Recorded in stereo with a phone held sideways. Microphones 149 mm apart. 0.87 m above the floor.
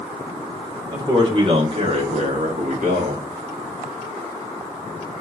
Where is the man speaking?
30° right (ahead or behind), 2 m; by 3.2 s 70° right (ahead or behind), 2 m.